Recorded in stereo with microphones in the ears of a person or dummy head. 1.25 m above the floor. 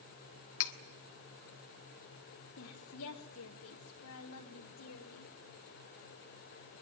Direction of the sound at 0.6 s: 65° left (ahead or behind).